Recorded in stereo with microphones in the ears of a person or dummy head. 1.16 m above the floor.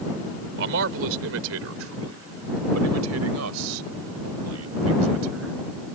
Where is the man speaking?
65° right (ahead or behind); by 5.7 s 70° right (ahead or behind).